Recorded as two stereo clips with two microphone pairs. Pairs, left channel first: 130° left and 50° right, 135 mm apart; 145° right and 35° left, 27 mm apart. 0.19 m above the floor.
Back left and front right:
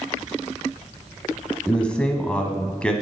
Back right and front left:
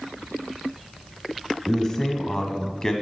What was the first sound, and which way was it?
A man speaking, 165° right.